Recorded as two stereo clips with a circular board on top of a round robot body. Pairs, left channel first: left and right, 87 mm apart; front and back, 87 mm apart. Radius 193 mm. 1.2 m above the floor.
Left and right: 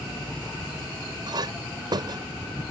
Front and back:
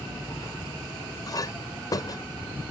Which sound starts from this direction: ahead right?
A clink, at 1.3 s.